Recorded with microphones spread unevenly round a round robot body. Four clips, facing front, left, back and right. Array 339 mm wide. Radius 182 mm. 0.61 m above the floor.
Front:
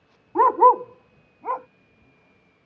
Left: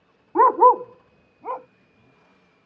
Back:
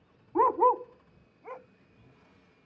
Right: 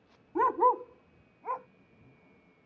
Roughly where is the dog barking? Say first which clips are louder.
Left 11 dB, front 8 dB; ahead left.